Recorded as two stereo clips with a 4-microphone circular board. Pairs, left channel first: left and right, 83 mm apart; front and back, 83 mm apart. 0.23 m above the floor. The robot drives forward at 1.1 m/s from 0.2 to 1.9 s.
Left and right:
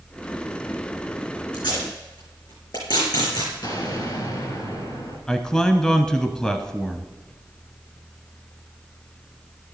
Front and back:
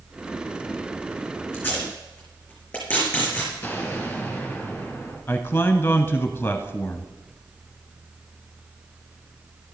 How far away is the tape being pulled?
About 5.5 m.